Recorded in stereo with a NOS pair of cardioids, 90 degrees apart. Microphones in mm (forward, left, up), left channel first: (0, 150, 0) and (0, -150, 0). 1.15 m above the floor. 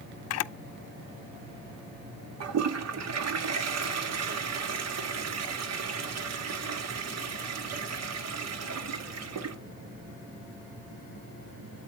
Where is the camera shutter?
55° left, 0.6 m.